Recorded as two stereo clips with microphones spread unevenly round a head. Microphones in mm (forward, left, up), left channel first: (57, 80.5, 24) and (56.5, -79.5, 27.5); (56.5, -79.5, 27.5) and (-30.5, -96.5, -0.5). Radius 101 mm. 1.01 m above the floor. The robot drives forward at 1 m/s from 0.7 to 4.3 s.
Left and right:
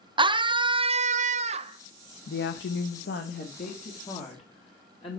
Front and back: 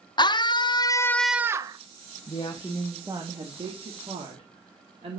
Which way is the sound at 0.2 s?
30° right.